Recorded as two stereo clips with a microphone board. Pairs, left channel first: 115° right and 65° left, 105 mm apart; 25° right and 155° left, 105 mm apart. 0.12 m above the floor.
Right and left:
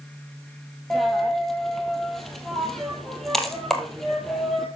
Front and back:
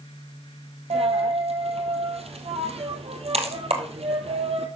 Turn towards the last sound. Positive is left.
turn(degrees=160)